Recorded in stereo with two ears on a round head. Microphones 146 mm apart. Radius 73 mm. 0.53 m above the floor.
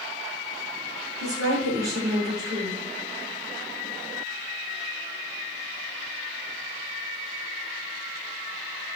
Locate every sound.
1.2 s a woman speaking: 20° right (ahead or behind), 6.5 m